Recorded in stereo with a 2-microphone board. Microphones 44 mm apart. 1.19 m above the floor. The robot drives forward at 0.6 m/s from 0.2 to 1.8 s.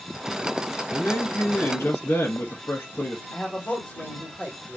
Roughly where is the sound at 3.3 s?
Left.